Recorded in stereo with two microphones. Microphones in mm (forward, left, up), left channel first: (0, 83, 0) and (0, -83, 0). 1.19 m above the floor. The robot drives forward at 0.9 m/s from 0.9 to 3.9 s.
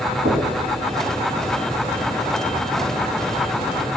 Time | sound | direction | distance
0.2 | knocking | 65° right (ahead or behind) | 1.5 m